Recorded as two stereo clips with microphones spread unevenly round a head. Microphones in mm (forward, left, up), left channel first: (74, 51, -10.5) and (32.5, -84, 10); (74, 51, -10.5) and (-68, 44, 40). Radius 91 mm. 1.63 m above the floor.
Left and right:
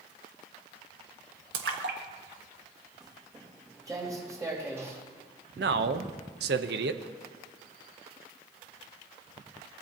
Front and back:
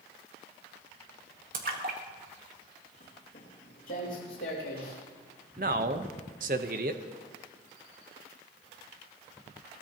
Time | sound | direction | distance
1.5 | a splash | 130° right | 1.4 m
3.0 | footsteps | 50° right | 4.5 m
5.6 | a man speaking | 130° right | 0.9 m